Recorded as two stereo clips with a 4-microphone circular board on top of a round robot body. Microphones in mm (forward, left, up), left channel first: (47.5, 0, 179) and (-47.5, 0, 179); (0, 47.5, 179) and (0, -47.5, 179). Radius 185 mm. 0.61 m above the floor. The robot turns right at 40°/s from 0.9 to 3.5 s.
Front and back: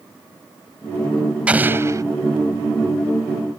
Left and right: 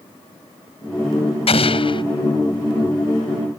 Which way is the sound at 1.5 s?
100° left.